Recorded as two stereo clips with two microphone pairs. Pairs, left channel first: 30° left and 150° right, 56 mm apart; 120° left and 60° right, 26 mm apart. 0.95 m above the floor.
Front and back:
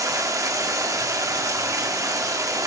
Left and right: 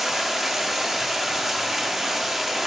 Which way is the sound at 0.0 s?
140° right.